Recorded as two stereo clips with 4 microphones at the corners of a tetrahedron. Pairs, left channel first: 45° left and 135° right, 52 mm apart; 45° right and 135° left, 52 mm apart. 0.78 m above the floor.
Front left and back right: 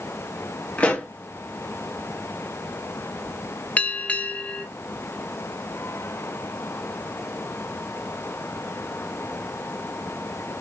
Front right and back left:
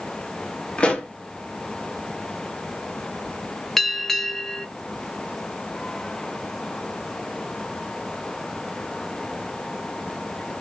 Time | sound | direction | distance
0.8 | a pop | 10° left | 1.0 m
3.8 | a bell | 35° left | 0.6 m